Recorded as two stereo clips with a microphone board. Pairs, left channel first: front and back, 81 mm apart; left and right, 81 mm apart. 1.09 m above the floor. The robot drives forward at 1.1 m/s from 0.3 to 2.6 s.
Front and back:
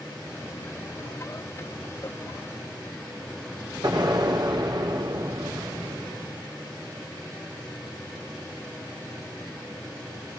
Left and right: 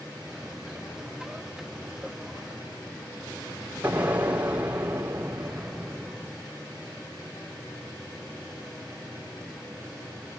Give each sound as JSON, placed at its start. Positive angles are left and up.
{"t": 3.8, "sound": "an explosion", "azimuth_deg": -165, "distance_m": 3.5}